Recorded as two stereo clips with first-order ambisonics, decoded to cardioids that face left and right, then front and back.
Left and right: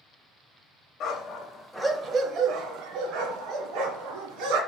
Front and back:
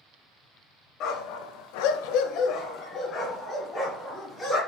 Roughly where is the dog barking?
Ahead left.